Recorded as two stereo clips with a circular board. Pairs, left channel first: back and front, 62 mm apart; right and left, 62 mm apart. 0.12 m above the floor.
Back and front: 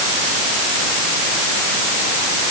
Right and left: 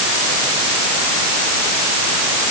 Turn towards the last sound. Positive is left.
No sound to turn to.